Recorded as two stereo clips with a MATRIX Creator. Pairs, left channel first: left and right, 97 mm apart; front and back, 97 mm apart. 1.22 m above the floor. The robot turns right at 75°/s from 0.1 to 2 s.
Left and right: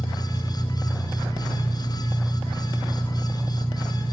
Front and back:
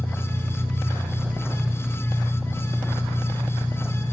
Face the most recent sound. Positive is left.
turn(degrees=-80)